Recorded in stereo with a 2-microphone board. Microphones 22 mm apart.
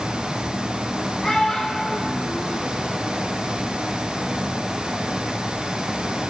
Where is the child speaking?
20° left (ahead or behind), 2 m; by 3.2 s 45° left (ahead or behind), 2.5 m.